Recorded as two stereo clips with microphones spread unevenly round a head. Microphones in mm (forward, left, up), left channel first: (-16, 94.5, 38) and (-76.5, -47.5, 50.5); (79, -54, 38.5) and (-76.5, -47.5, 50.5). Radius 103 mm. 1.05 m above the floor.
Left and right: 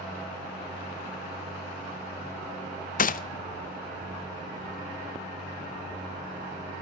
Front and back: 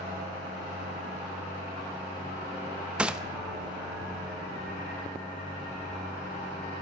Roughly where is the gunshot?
Left.